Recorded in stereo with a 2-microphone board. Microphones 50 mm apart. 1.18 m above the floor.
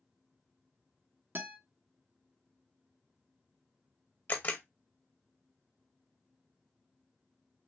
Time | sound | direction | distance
1.4 | a guitar | 50° right (ahead or behind) | 1.0 m
4.3 | a camera shutter | 45° left (ahead or behind) | 0.8 m